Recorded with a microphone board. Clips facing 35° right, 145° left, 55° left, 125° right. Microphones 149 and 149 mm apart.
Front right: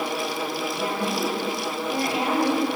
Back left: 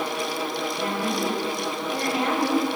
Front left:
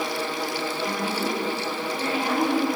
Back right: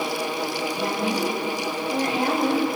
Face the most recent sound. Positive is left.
turn(degrees=-100)